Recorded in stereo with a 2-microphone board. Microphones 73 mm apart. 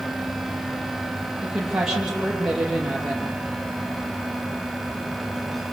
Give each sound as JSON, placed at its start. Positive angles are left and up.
{"t": 1.4, "sound": "a woman speaking", "side_deg": -10, "distance_m": 8.0}